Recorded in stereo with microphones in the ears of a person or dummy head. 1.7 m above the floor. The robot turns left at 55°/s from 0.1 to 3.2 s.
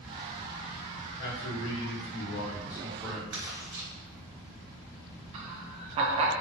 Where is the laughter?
30° right (ahead or behind), 0.6 m.